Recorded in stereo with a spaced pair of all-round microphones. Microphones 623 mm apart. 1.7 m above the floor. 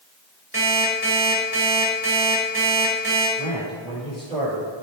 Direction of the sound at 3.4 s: Centre (ahead or behind).